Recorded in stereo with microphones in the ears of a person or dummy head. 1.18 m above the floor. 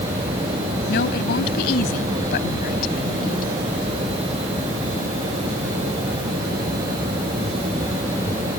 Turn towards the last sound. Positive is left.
turn(degrees=50)  # may be behind; listen again after turning